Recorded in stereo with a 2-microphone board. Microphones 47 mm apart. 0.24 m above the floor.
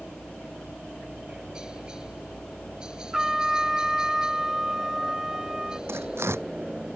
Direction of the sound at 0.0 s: 15° right (ahead or behind).